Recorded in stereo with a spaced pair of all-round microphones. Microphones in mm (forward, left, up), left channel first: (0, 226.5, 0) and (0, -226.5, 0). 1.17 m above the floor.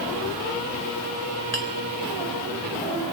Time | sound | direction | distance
1.5 | a clink | 35° left (ahead or behind) | 4 m